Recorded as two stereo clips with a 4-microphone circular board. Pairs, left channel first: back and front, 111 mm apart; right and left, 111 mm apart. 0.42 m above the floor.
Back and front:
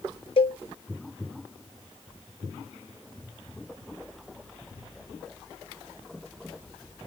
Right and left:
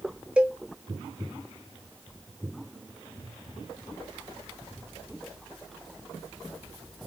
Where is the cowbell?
170° left, 0.7 m.